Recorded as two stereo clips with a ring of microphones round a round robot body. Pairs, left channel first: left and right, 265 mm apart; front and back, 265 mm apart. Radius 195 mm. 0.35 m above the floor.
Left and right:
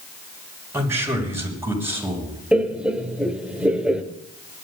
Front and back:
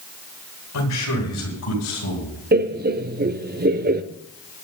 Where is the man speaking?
10° right, 6.5 m.